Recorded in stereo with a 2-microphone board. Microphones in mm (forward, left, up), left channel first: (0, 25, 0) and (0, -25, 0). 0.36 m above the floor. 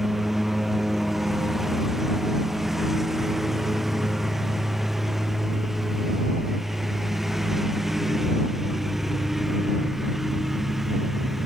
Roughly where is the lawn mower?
Centre.